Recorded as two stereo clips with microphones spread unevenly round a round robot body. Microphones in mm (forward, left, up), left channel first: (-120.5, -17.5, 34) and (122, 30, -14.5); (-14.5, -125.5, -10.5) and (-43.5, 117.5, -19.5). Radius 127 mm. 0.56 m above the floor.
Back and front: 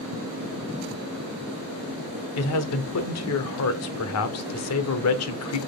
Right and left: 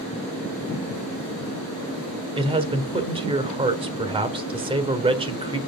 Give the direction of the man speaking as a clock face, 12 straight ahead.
7 o'clock.